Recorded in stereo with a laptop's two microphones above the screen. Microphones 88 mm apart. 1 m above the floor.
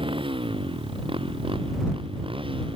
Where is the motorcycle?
80° right; by 2.8 s 85° right.